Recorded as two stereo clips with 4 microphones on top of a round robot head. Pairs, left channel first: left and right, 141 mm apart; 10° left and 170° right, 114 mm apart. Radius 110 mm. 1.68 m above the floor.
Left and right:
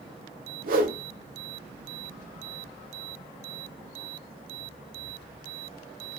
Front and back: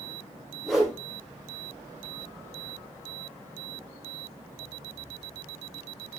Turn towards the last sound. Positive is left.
turn(degrees=-80)